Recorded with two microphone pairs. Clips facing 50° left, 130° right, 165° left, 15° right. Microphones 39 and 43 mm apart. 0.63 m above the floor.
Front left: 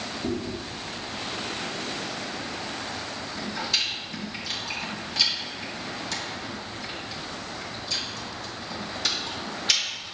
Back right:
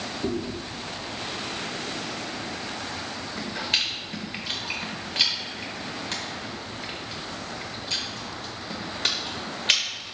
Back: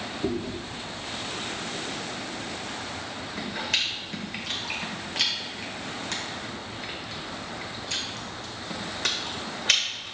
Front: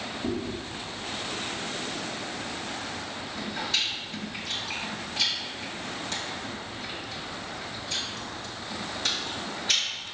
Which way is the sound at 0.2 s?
Straight behind.